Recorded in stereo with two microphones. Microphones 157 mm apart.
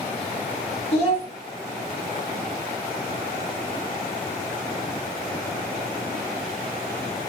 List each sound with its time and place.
0.9 s a child speaking: 40° left (ahead or behind), 1.0 m